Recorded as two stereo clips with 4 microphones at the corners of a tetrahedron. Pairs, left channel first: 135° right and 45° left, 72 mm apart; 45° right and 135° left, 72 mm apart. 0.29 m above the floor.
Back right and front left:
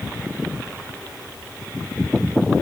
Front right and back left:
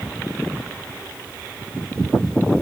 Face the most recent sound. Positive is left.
No sound to turn to.